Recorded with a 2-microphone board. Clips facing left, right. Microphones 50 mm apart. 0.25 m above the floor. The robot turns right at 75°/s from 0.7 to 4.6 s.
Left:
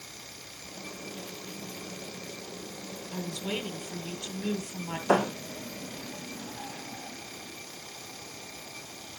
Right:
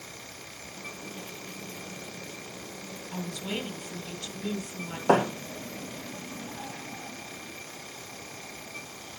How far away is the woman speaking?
About 1.5 m.